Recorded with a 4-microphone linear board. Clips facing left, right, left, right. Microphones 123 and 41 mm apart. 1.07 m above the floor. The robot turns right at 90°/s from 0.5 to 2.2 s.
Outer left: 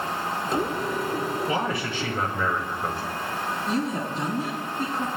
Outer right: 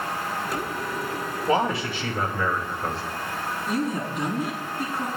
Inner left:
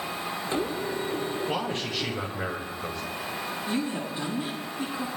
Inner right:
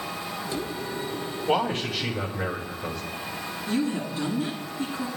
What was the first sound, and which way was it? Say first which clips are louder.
A man speaking: outer right 3 dB, inner right 5 dB; 50° right.